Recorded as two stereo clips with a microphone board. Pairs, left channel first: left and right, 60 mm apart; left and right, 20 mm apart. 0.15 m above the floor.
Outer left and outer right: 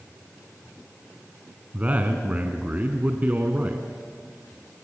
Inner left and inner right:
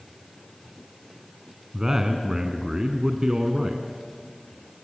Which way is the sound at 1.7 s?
25° right (ahead or behind).